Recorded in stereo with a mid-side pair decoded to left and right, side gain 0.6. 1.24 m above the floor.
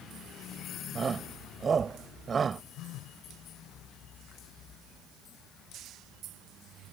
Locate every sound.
0.9 s a shout: 30° right
2.8 s a phone buzzing: 65° left